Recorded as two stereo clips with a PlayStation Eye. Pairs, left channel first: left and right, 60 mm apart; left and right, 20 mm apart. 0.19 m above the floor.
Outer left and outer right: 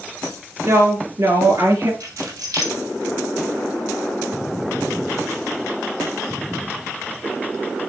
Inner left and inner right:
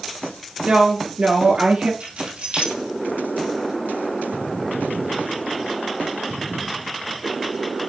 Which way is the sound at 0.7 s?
55° right (ahead or behind).